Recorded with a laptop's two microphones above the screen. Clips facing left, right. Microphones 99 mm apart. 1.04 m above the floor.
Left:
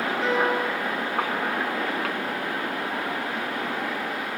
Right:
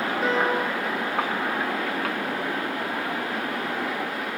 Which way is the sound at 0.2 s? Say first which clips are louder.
Even; 15° right (ahead or behind).